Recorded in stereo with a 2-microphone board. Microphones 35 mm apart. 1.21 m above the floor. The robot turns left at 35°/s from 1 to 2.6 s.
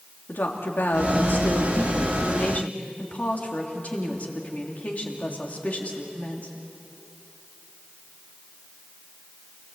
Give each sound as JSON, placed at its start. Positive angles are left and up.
{"t": 0.3, "sound": "a woman speaking", "azimuth_deg": 100, "distance_m": 3.0}